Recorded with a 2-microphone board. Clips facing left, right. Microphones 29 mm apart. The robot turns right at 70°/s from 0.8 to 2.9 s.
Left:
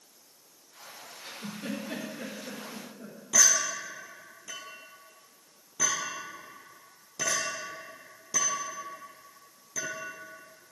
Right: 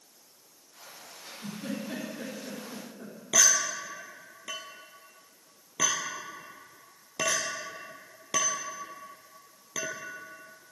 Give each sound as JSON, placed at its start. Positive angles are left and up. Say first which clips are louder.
{"t": 1.2, "sound": "a giggle", "louder": "even", "side_deg": 45, "distance_m": 4.5}
{"t": 3.3, "sound": "a clink", "louder": "even", "side_deg": -65, "distance_m": 2.0}